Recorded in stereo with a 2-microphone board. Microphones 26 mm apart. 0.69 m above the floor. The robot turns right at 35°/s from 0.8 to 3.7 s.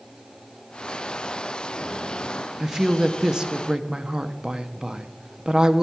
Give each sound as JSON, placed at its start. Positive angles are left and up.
{"t": 2.6, "sound": "a woman speaking", "side_deg": -15, "distance_m": 0.6}